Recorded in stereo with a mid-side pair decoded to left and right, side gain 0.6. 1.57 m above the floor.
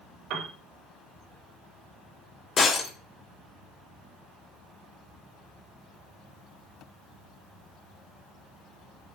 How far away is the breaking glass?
About 3.5 m.